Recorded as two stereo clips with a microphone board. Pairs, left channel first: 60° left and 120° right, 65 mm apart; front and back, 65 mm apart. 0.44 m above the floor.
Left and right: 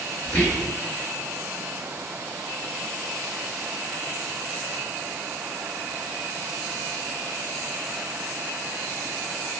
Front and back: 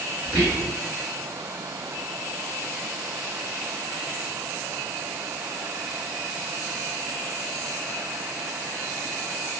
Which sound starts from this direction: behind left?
Whispering, at 0.2 s.